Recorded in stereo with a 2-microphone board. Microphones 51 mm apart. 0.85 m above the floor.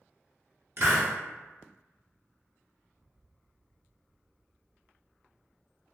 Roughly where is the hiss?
Right.